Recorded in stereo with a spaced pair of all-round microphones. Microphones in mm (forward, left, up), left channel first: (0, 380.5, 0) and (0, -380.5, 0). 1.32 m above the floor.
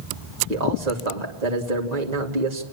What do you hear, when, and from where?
0.5 s a man speaking: 60° right (ahead or behind), 3 m